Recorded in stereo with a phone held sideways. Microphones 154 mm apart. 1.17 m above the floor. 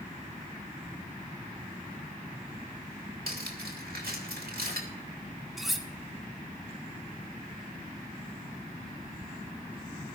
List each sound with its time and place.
3.3 s cutlery clinking: 80° right, 2.5 m
5.6 s cutlery clinking: centre (ahead or behind), 1.6 m